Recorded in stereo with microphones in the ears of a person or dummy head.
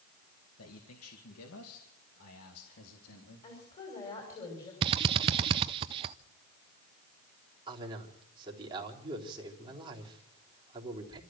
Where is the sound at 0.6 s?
75° left (ahead or behind), 1.9 m; by 3.5 s 80° left, 3.5 m.